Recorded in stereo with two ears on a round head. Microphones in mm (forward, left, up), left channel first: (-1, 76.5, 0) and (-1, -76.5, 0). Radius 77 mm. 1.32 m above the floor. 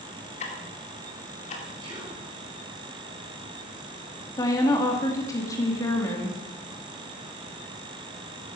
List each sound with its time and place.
0.4 s ticking: 45° left (ahead or behind), 2.5 m
1.8 s whispering: 25° right (ahead or behind), 5.5 m
4.4 s a woman speaking: 20° left (ahead or behind), 2.5 m